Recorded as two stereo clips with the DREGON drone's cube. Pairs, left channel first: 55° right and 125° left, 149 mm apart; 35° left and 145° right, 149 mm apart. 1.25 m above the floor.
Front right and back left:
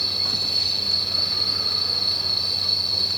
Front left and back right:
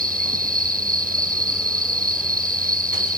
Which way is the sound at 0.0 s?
145° right.